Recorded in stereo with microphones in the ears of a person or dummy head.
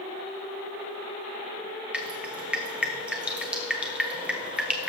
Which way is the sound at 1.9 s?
Centre (ahead or behind).